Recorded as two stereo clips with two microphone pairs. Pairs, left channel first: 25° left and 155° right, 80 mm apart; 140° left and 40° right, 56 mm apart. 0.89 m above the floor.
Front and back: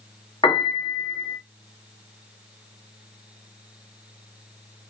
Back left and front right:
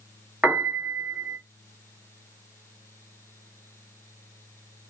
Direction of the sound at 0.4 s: 35° left.